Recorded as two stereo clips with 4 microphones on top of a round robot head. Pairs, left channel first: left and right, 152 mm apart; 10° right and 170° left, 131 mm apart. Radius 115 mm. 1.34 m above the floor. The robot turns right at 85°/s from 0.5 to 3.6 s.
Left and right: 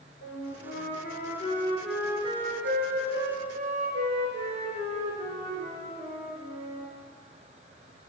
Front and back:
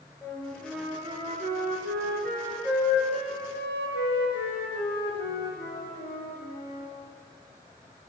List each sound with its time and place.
0.2 s a flute: 60° left, 5 m; by 6.9 s 35° right, 5 m